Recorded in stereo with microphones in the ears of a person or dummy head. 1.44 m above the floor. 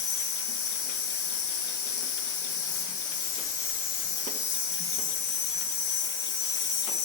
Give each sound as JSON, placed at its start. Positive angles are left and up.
{"t": 0.0, "sound": "an insect", "side_deg": 15, "distance_m": 0.8}